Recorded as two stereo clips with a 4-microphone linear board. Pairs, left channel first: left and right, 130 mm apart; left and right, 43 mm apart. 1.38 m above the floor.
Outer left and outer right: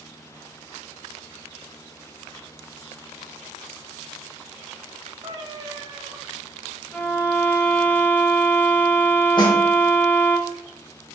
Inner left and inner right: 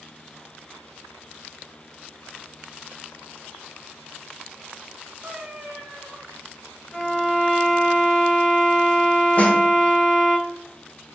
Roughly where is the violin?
Centre.